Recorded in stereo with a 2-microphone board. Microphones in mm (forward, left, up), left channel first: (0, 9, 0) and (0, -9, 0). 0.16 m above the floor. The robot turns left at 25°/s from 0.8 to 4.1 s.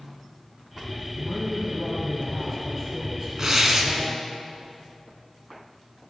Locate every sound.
1.2 s a man speaking: 5° left, 3 m; by 4.2 s 65° right, 3 m
3.4 s tearing paper: 30° right (ahead or behind), 1.7 m; by 3.9 s 35° right (ahead or behind), 1.7 m